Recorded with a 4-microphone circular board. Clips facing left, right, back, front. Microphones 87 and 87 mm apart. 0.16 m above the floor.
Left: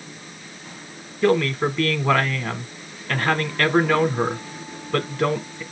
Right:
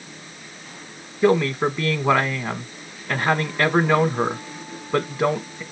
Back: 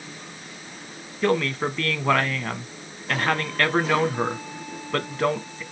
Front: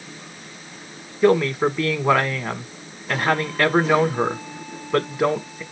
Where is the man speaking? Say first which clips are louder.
Right 1 dB, front 6 dB; 55° right, 1.1 m.